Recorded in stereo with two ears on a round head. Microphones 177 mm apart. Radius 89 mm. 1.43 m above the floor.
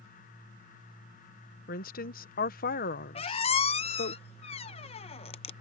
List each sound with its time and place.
1.7 s a woman speaking: 50° left (ahead or behind)
3.1 s a squeak: 30° left (ahead or behind)